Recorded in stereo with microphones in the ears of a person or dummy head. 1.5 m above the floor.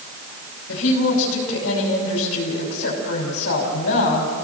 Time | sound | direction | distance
0.7 | a woman speaking | 80° left | 6 m